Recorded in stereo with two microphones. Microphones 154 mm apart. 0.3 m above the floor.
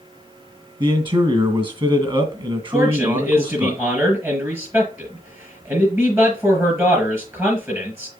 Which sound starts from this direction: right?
A man speaking, at 0.8 s.